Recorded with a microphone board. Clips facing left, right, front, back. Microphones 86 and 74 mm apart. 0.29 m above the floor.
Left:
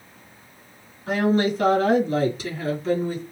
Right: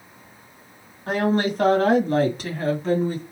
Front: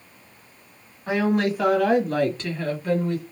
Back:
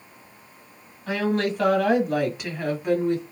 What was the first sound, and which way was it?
A woman speaking, 70° right.